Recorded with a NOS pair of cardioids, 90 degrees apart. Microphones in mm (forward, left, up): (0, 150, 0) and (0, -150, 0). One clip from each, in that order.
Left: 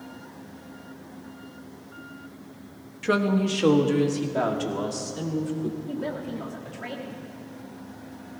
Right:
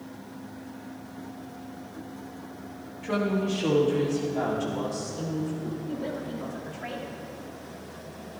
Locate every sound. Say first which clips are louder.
3.0 s a woman speaking: left 4 dB; 65° left, 1.3 m; by 5.8 s 50° left, 3 m
5.9 s a woman speaking: left 1 dB; 35° left, 2 m